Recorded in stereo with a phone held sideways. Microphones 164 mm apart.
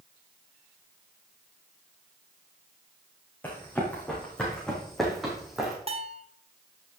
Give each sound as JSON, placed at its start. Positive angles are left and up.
{"t": 3.4, "sound": "running footsteps", "side_deg": 10, "distance_m": 4.0}
{"t": 5.9, "sound": "a bell", "side_deg": -40, "distance_m": 1.2}